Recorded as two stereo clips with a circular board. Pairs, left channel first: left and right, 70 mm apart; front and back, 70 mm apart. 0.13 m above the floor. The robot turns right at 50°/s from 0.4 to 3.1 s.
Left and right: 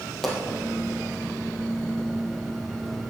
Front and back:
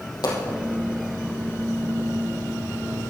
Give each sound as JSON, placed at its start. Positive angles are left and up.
{"t": 0.2, "sound": "a pop", "azimuth_deg": 5, "distance_m": 3.5}